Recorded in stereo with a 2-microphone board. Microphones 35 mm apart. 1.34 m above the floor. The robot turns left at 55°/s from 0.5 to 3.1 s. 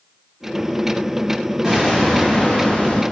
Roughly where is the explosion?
Behind.